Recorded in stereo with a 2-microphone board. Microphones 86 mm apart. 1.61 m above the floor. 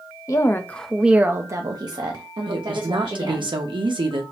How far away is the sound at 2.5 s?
About 0.9 m.